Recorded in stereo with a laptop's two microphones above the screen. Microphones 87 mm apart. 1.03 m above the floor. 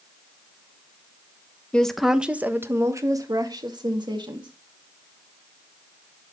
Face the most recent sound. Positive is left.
turn(degrees=-65)  # may be behind; listen again after turning